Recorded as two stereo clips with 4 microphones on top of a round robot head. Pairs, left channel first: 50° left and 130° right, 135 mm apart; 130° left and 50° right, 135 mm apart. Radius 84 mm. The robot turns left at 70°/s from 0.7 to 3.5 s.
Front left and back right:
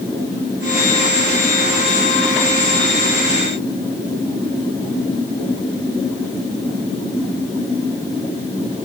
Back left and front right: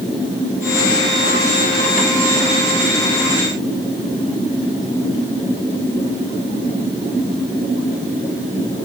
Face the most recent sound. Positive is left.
No sound to turn to.